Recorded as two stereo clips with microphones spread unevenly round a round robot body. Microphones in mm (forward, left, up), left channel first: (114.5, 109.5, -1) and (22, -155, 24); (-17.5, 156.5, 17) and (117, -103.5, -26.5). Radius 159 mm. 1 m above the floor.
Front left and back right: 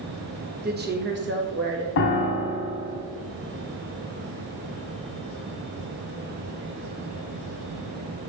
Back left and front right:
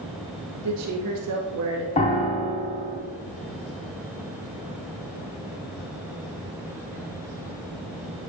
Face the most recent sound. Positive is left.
turn(degrees=80)